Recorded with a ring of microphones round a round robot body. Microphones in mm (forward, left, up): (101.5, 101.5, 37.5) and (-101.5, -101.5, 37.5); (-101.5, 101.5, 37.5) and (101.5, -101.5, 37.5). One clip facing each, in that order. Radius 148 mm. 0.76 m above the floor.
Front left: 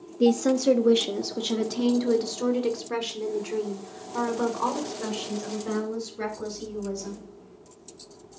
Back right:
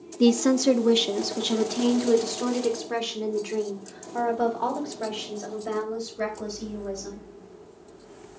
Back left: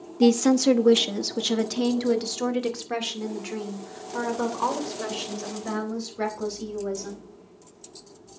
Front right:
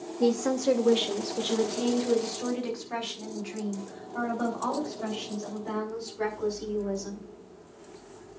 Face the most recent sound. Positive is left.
turn(degrees=115)